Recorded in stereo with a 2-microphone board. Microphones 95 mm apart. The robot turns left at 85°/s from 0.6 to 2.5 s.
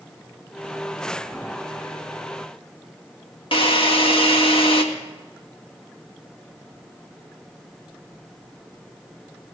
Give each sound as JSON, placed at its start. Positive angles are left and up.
{"t": 3.5, "sound": "a drill", "side_deg": 60, "distance_m": 1.9}